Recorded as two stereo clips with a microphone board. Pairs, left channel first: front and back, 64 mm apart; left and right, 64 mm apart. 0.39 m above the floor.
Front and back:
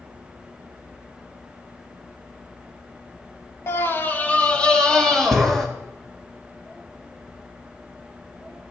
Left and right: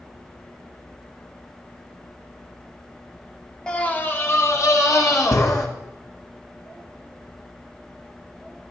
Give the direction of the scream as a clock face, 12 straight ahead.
11 o'clock.